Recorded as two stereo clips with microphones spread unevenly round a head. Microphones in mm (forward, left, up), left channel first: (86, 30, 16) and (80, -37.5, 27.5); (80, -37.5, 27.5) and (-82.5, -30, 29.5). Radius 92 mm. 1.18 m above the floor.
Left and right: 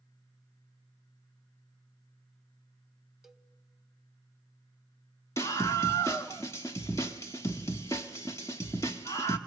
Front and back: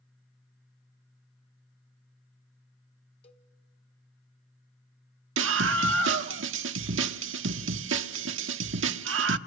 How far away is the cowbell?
About 1.2 m.